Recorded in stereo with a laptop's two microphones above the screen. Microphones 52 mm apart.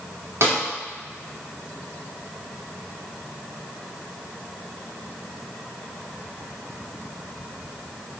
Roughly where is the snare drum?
Right.